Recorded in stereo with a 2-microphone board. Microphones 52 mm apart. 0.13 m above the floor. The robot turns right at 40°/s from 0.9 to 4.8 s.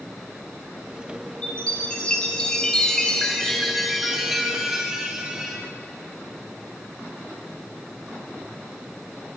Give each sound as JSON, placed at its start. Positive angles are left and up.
{"t": 1.4, "sound": "a chime", "side_deg": 20, "distance_m": 1.0}